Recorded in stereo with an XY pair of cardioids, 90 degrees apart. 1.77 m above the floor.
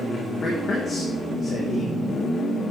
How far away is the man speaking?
About 4 m.